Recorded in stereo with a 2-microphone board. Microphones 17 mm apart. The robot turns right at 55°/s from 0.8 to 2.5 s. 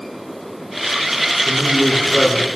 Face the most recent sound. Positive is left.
turn(degrees=-105)